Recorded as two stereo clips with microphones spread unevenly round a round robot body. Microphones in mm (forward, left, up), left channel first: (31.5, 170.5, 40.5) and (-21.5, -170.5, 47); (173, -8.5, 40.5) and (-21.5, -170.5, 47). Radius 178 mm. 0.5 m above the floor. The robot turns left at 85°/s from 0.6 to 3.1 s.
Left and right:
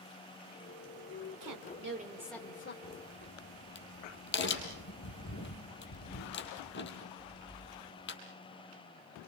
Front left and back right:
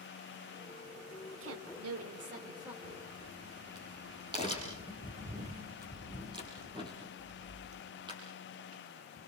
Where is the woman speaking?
115° right, 1.8 m; by 2.7 s 130° left, 1.8 m.